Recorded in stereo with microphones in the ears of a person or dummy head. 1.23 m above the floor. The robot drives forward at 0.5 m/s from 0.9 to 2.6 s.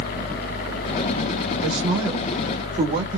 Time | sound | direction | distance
1.6 | a man speaking | 25° right (ahead or behind) | 2.5 m